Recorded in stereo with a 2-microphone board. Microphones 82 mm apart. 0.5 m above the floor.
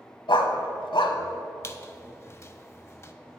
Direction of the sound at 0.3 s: 75° left (ahead or behind).